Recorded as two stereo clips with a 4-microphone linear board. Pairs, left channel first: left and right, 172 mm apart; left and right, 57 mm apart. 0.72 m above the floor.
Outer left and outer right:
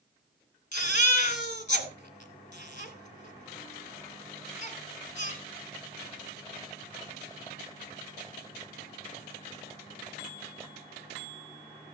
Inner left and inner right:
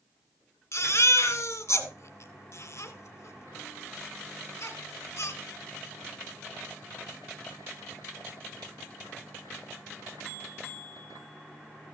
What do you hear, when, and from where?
0.7 s a baby crying: 50° left (ahead or behind), 2 m